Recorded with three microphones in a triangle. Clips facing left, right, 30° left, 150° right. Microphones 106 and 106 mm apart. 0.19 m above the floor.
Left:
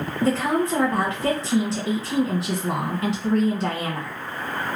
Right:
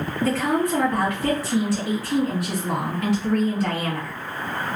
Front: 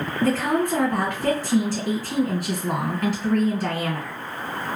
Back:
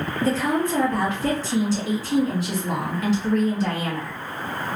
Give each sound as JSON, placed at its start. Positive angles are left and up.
{"t": 0.2, "sound": "a woman speaking", "azimuth_deg": 35, "distance_m": 1.7}